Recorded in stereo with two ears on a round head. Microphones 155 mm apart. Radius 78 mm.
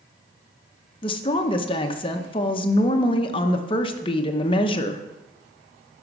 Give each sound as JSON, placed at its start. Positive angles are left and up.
{"t": 1.0, "sound": "a woman speaking", "side_deg": 30, "distance_m": 0.7}